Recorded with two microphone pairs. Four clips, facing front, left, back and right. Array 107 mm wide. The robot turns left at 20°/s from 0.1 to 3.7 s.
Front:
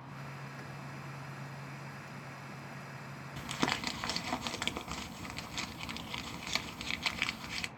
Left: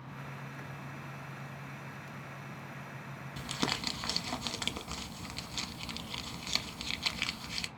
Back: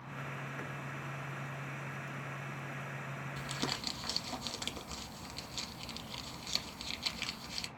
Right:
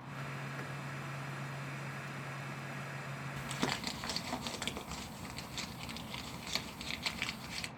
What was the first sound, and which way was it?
Crumpling, 20° left.